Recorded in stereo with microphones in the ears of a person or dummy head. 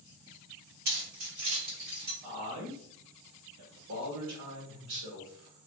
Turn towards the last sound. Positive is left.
turn(degrees=-75)  # may be behind; listen again after turning